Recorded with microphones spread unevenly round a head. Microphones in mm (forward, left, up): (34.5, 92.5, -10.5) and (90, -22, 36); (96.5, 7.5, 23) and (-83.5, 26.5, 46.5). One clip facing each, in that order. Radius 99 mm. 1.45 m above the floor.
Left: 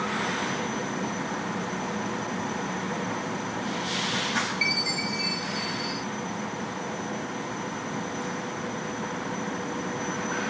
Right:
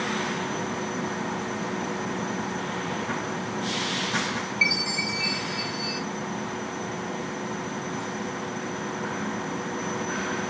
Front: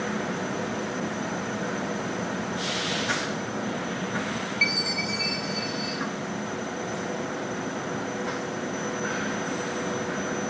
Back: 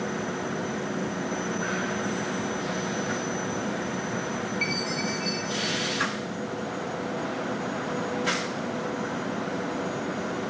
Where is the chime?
15° left, 1.8 m.